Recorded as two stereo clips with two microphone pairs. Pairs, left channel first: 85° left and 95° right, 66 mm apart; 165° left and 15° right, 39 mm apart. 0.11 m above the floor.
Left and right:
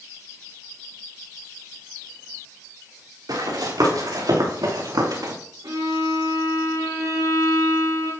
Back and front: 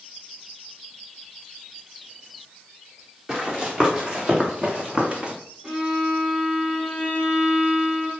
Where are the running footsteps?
85° right, 5.5 m; by 5.3 s 75° right, 3.5 m.